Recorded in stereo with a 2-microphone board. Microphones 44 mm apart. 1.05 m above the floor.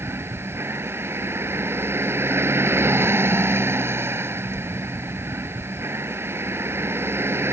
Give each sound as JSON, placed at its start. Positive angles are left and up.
{"t": 0.0, "sound": "a vehicle", "side_deg": -65}